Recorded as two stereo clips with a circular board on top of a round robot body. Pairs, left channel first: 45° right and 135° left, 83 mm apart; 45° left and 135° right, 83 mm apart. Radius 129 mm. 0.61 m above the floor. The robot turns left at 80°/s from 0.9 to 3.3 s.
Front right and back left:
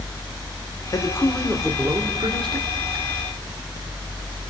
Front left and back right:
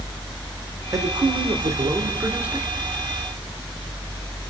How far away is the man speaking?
About 1.9 m.